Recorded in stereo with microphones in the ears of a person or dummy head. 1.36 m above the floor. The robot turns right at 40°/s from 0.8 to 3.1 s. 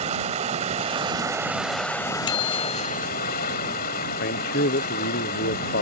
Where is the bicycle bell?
160° left; by 3.1 s 170° right.